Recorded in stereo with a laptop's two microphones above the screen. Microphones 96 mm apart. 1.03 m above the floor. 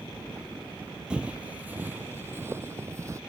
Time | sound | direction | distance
1.1 | footsteps | 10° right (ahead or behind) | ?